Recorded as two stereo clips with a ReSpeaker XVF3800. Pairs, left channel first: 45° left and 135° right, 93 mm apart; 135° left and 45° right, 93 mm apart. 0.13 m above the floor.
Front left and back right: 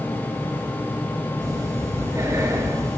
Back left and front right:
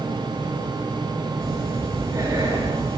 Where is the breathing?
90° right, 1.9 m.